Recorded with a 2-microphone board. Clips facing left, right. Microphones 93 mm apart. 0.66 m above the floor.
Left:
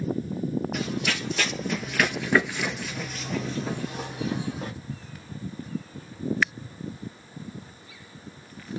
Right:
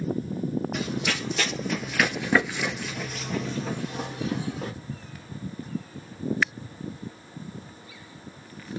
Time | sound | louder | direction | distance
0.7 | running footsteps | even | centre (ahead or behind) | 1.3 m